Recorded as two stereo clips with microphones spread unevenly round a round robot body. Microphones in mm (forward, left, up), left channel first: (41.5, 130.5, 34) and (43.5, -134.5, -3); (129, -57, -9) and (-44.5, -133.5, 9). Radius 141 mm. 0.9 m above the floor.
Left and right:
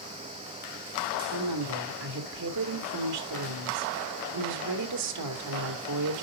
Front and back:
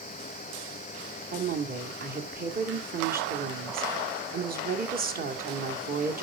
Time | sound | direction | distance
1.3 | a woman speaking | 115° right | 2 m